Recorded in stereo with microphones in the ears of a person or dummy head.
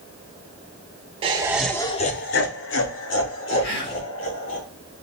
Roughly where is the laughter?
Right.